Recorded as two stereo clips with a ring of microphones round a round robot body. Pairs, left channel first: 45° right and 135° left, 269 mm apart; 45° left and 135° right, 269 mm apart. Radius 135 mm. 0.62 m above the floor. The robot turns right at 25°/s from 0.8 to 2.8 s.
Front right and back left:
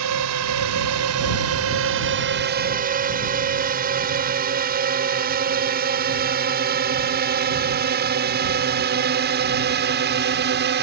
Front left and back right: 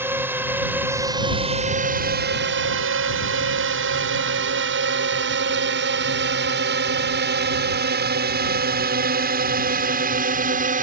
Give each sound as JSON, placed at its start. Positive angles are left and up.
{"t": 0.0, "sound": "a drone", "azimuth_deg": 145}